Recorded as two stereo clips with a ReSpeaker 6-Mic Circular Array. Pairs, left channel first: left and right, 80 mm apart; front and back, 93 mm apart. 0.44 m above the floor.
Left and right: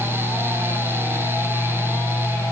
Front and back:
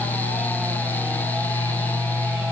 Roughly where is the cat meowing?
No cat meowing in this recording.